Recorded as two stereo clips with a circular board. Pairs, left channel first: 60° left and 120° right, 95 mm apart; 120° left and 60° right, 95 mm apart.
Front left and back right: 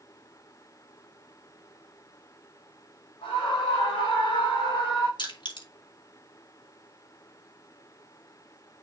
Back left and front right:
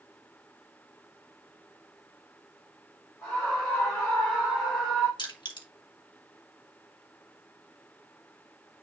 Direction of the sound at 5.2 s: 90° left.